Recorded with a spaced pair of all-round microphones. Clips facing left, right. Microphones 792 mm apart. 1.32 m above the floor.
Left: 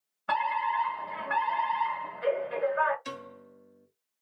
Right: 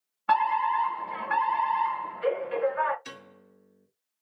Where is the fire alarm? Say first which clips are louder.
Right 5 dB; 10° left (ahead or behind), 1.8 m.